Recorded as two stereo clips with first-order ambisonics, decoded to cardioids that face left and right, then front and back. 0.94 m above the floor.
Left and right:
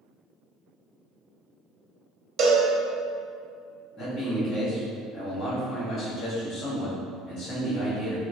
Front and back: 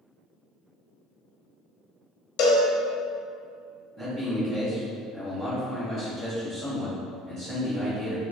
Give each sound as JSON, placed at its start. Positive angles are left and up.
{"t": 2.4, "sound": "a cowbell", "azimuth_deg": -40, "distance_m": 0.5}
{"t": 4.0, "sound": "a man speaking", "azimuth_deg": 145, "distance_m": 1.7}